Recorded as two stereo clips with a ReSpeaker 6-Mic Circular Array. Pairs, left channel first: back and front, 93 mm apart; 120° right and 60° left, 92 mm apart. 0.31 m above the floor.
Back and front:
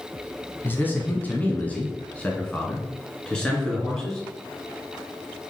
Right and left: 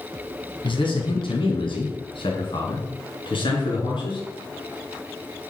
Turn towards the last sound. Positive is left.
turn(degrees=-95)